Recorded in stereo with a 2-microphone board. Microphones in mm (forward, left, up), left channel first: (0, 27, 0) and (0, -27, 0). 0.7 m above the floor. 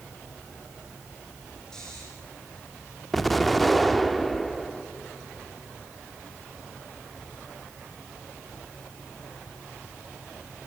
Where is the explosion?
5° left (ahead or behind), 0.9 m.